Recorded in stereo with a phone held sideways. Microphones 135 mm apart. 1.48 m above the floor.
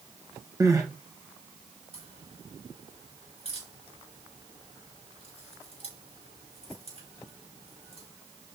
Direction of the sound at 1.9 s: 50° right (ahead or behind).